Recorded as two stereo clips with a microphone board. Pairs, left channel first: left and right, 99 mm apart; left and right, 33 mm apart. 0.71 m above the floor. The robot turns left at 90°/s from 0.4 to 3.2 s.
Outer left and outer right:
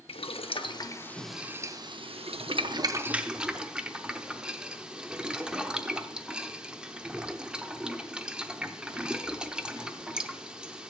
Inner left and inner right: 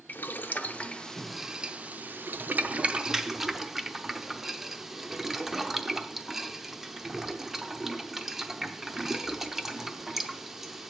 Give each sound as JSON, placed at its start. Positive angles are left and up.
{"t": 0.1, "sound": "boiling", "side_deg": 80, "distance_m": 0.6}